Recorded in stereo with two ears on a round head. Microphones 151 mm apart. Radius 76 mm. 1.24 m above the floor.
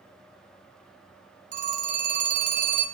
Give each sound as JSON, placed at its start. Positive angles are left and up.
{"t": 1.5, "sound": "a phone ringing", "side_deg": -45, "distance_m": 0.9}